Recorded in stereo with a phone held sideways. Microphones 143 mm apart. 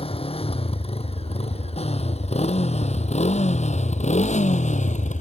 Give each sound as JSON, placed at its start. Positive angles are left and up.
{"t": 0.0, "sound": "a motorcycle", "side_deg": 40}